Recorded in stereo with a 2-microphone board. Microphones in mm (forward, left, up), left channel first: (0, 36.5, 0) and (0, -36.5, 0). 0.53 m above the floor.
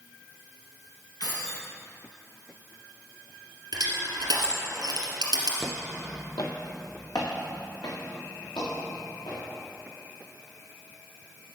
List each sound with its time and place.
1.2 s keys jangling: 80° left, 3 m
3.7 s crushing: 75° right (ahead or behind), 2.5 m
5.6 s footsteps: 5° left (ahead or behind), 0.5 m; by 9.4 s 75° left (ahead or behind), 5 m